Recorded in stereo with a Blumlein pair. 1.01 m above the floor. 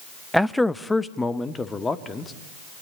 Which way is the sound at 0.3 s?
Straight ahead.